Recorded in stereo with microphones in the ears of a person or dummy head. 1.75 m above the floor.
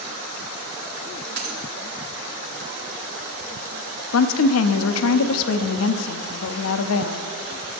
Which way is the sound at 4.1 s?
75° left (ahead or behind).